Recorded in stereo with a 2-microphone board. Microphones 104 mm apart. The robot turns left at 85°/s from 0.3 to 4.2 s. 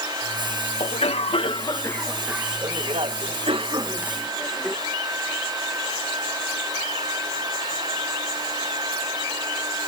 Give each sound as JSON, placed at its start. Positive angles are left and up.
{"t": 0.8, "sound": "a cough", "azimuth_deg": 115}